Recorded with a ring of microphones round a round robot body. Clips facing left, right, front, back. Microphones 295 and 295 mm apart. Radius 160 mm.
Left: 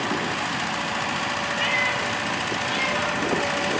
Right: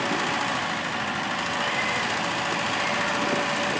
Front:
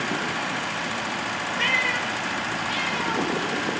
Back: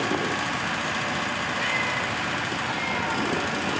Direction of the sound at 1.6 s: 35° left.